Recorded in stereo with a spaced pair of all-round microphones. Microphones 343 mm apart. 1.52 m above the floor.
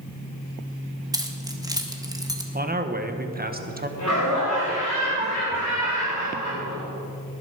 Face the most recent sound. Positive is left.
turn(degrees=55)  # may be behind; listen again after turning